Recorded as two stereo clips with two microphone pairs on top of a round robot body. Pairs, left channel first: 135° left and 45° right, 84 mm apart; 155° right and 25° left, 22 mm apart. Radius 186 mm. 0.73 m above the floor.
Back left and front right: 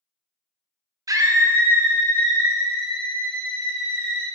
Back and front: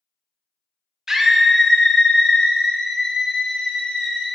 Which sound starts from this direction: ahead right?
A scream, at 1.1 s.